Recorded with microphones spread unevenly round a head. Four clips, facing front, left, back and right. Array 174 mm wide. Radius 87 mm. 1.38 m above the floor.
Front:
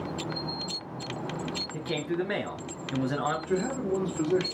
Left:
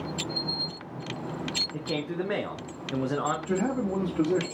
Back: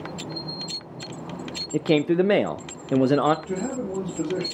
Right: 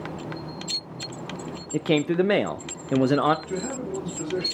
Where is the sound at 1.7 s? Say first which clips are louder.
Right 11 dB, back 12 dB; 140° right, 0.6 m.